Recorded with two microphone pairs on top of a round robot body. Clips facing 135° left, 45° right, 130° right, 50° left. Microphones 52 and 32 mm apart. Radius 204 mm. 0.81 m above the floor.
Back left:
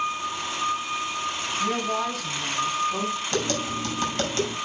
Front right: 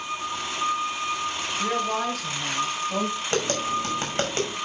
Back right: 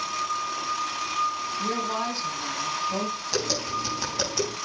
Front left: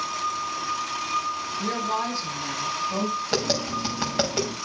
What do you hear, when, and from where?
1.6 s a woman speaking: 20° right, 5 m; by 3.2 s 35° right, 6 m
3.3 s tapping: 5° left, 5.5 m